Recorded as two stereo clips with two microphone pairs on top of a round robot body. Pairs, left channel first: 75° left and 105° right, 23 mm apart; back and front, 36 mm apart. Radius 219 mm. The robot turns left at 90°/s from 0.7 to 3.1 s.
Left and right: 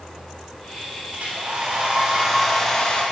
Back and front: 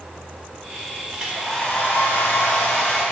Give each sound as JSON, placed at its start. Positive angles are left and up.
{"t": 1.1, "sound": "a hair dryer", "azimuth_deg": -70, "distance_m": 0.6}